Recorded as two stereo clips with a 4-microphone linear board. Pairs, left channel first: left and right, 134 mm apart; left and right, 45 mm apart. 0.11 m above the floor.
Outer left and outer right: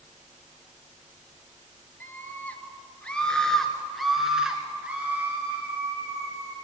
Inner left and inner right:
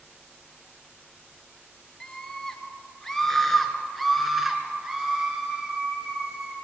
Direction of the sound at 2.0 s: 15° left (ahead or behind).